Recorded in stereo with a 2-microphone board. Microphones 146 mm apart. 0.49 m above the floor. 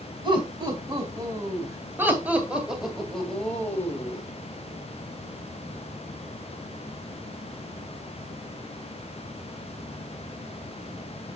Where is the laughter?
35° right (ahead or behind), 3.5 m; by 4.2 s 20° left (ahead or behind), 2.5 m.